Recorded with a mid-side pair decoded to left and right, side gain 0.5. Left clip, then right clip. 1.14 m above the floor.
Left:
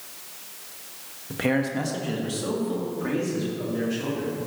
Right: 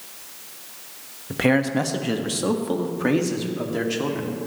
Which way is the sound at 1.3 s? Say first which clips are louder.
Right 5 dB; 30° right.